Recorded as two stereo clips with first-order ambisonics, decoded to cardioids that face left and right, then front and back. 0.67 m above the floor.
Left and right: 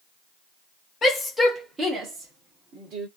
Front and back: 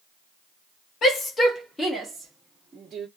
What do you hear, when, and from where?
1.0 s a shout: 35° left, 1.1 m; by 3.1 s 115° right, 1.7 m